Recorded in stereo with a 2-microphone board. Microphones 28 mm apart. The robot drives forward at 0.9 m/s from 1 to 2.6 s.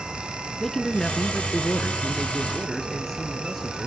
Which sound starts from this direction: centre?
A man speaking, at 0.6 s.